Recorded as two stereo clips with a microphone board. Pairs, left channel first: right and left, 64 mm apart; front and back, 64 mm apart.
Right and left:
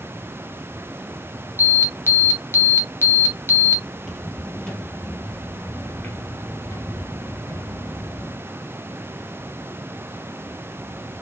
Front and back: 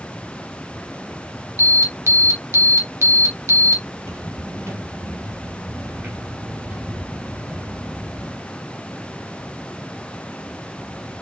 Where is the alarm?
140° right, 1.4 m.